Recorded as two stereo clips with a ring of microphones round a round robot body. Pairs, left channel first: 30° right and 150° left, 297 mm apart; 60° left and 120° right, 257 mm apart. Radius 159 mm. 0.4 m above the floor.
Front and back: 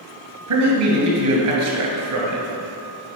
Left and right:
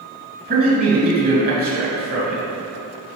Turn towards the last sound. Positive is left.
turn(degrees=-175)